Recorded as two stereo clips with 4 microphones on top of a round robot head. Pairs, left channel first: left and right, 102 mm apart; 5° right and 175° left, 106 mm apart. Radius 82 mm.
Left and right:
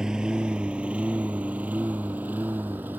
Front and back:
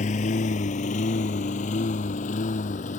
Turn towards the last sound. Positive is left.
turn(degrees=-10)